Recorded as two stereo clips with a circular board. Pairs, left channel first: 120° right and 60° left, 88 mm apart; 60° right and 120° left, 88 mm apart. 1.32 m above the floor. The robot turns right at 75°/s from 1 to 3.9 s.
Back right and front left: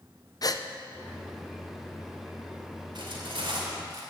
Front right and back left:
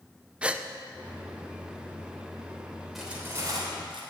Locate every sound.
0.4 s a gasp: 165° right, 0.6 m
3.0 s cutlery clinking: 30° left, 3 m; by 4.0 s 100° left, 3 m